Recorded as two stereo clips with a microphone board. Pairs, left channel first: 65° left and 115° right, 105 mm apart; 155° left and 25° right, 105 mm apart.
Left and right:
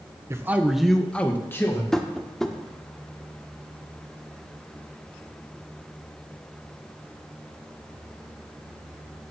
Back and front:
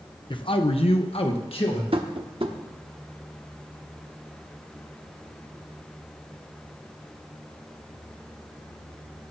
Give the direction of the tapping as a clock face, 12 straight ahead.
1 o'clock.